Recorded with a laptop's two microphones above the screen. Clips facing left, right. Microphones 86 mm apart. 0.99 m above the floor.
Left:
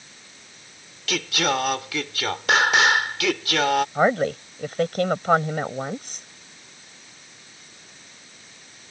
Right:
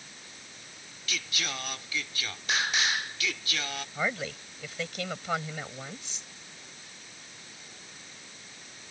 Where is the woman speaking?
50° left (ahead or behind).